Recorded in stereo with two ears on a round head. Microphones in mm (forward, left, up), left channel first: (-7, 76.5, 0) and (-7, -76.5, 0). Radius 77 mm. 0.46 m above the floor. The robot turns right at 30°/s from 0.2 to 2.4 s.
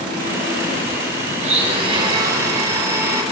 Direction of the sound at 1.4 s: 55° right.